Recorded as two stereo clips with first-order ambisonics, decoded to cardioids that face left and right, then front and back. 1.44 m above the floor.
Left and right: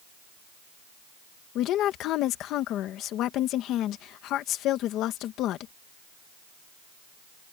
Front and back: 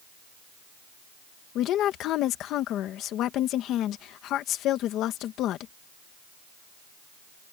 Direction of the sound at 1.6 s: 45° left.